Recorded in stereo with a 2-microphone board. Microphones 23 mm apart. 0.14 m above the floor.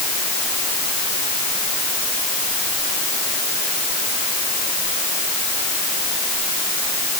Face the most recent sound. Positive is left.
No sound to turn to.